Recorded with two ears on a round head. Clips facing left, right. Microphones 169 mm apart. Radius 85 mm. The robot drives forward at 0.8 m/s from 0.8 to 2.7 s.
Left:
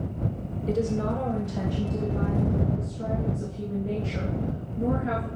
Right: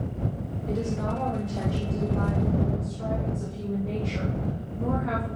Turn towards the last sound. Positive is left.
turn(degrees=15)  # may be behind; listen again after turning